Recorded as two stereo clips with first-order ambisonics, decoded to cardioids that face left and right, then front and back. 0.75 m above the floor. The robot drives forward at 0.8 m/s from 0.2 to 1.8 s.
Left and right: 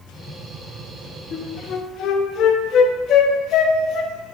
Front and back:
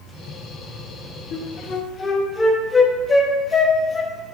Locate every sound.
1.3 s a flute: 40° left, 0.9 m; by 4.1 s 70° left, 0.7 m